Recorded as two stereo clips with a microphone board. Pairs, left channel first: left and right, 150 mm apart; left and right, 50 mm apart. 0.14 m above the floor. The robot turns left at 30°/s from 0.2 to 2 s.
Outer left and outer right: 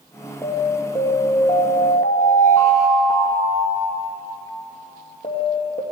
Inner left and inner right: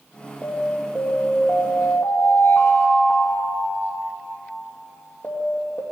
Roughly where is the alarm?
Behind.